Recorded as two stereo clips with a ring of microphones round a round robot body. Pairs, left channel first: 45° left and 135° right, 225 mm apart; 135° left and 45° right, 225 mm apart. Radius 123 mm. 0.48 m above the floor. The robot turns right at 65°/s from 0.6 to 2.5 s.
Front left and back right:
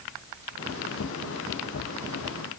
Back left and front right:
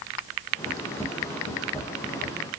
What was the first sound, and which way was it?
Only background noise.